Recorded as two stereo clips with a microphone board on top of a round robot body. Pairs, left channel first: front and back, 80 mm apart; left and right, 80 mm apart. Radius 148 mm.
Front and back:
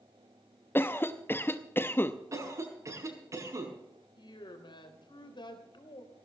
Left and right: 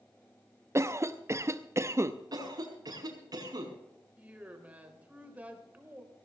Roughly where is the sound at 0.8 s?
Ahead right.